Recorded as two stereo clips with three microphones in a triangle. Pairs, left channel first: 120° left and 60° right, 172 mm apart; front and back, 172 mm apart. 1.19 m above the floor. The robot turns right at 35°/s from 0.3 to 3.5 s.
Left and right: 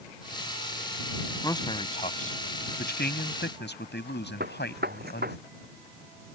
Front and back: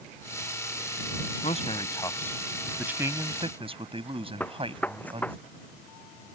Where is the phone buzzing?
No phone buzzing in this recording.